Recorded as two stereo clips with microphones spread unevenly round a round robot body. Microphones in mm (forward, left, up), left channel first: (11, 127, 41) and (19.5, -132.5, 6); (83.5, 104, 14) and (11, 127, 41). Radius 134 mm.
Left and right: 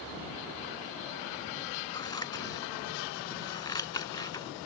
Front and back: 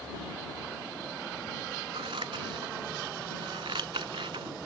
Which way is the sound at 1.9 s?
170° left.